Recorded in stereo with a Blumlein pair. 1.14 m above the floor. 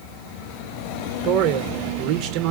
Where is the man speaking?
40° right, 0.7 m.